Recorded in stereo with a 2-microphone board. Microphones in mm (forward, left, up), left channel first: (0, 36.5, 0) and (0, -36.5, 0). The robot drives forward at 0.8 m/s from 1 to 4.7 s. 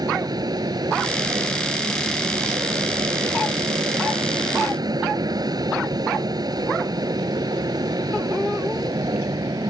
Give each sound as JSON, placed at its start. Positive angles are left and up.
{"t": 0.0, "sound": "an aircraft", "side_deg": -65}